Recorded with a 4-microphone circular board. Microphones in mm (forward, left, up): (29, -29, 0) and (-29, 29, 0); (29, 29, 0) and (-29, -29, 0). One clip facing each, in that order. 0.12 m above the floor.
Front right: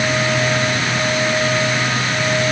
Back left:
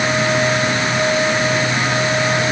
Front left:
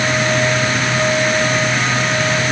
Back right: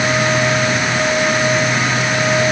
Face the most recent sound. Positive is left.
No sound to turn to.